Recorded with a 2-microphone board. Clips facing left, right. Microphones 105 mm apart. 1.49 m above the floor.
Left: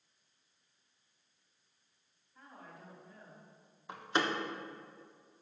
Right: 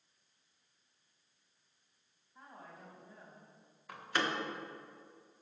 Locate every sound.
2.4 s a woman speaking: 20° right (ahead or behind), 3 m
3.9 s a door slam: 20° left (ahead or behind), 1.0 m